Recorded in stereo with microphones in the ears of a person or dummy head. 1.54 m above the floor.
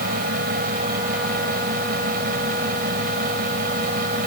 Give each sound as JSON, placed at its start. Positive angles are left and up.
{"t": 0.0, "sound": "a fan", "side_deg": -55}